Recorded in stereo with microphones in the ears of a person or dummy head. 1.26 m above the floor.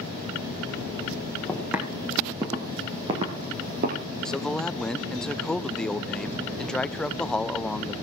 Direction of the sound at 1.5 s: 5° right (ahead or behind).